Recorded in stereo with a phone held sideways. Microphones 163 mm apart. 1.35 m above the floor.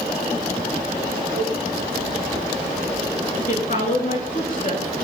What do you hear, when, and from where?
1.4 s a cowbell: 70° left (ahead or behind), 6 m
3.5 s a woman speaking: 55° left (ahead or behind), 3 m